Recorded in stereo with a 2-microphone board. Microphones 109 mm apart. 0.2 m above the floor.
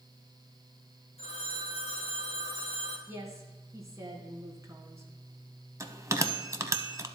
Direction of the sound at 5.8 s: 30° right (ahead or behind).